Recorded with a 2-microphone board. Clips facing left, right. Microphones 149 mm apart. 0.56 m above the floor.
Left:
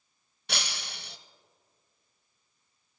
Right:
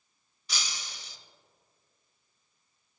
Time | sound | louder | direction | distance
0.5 | breaking glass | left 4 dB | 65° left (ahead or behind) | 0.6 m